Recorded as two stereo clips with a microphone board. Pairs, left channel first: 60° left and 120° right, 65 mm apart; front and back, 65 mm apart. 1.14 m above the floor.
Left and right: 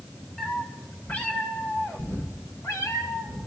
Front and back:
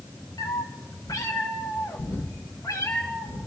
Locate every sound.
0.4 s a cat meowing: 20° right, 2.5 m; by 3.5 s 35° left, 3 m